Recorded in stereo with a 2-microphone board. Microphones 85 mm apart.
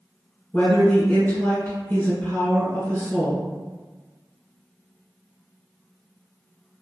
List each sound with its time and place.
0.5 s a woman speaking: 25° left (ahead or behind), 1.9 m